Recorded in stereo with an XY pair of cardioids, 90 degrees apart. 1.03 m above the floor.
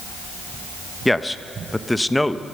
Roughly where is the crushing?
I don't hear crushing.